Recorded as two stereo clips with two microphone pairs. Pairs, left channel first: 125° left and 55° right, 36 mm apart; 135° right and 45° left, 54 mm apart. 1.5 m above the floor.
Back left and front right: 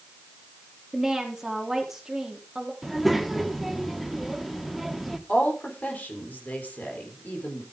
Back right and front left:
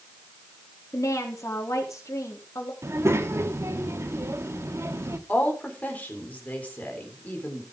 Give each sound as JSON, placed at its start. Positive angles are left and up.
{"t": 0.9, "sound": "a woman speaking", "azimuth_deg": -135, "distance_m": 3.5}
{"t": 2.8, "sound": "a child speaking", "azimuth_deg": 35, "distance_m": 1.5}
{"t": 5.3, "sound": "a woman speaking", "azimuth_deg": 165, "distance_m": 4.0}